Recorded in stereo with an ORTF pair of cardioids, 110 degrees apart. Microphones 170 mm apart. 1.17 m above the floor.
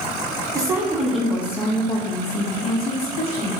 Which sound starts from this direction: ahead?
A woman speaking, at 0.6 s.